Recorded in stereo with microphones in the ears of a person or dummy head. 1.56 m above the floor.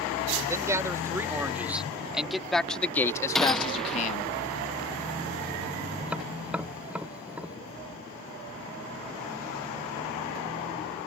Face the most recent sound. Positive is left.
turn(degrees=-10)  # may be behind; listen again after turning